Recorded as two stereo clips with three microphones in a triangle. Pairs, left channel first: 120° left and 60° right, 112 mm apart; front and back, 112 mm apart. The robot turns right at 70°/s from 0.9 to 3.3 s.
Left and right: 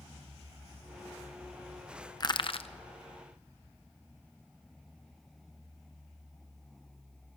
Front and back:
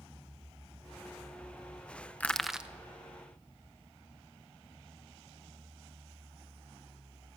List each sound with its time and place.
2.2 s crushing: 75° left, 0.7 m; by 2.7 s 110° left, 0.7 m